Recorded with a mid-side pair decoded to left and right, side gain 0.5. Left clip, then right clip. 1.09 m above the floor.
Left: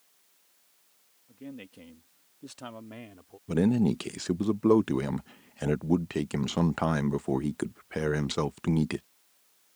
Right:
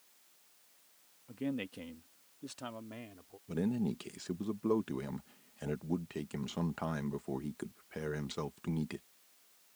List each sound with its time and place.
1.3 s a man speaking: 55° right; by 3.4 s 30° left
3.5 s a man speaking: 55° left